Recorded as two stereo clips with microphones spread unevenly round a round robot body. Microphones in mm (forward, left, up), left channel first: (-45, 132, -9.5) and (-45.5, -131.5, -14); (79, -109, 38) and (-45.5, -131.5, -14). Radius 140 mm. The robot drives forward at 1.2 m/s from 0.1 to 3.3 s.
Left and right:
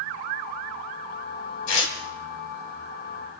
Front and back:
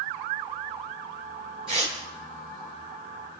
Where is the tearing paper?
110° left, 2 m; by 1.9 s 120° left, 2 m.